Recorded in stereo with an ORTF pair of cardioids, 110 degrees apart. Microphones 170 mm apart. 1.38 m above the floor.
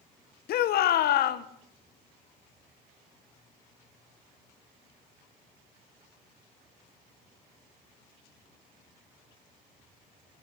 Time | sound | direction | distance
0.5 | a shout | 65° left | 1.2 m